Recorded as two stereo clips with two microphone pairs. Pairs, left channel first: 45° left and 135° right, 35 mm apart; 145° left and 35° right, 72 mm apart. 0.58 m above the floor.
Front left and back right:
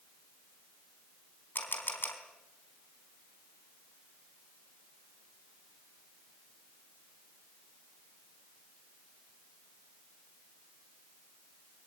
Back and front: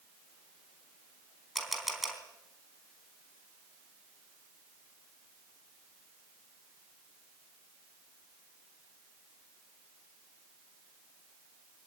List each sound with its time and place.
1.6 s a camera shutter: 55° left, 4 m